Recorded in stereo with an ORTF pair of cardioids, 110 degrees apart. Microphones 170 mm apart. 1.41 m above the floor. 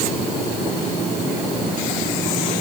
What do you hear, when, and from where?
Only background noise.